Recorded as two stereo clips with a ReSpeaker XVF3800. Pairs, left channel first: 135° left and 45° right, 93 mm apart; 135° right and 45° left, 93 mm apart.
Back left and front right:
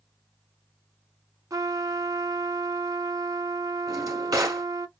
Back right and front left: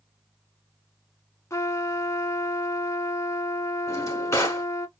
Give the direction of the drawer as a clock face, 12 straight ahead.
3 o'clock.